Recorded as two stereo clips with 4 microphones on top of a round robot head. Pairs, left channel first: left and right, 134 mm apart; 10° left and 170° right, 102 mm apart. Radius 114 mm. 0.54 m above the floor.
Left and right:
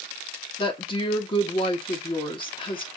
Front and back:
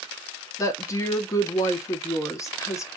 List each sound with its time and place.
0.6 s a woman speaking: 60° left, 1.1 m